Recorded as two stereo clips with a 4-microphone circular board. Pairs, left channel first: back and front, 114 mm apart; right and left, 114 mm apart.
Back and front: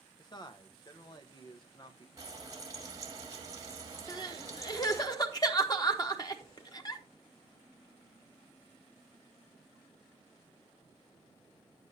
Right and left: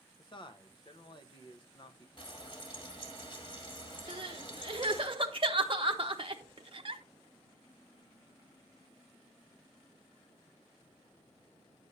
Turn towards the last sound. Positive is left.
turn(degrees=125)